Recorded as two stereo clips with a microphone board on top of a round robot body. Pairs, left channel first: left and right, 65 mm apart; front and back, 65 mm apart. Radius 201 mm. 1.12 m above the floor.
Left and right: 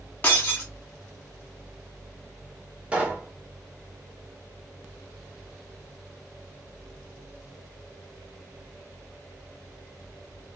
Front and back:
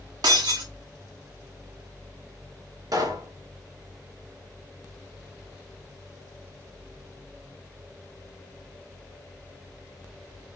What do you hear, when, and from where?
0.2 s breaking glass: 160° left, 0.8 m
2.9 s a pop: 160° right, 2 m